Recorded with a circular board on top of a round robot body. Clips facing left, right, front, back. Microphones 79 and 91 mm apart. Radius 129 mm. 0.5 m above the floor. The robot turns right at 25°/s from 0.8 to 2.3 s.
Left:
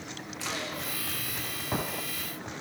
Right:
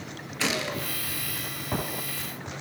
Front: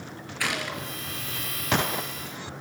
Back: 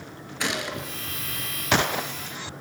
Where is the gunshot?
115° right, 3.5 m; by 0.9 s 110° right, 3.5 m.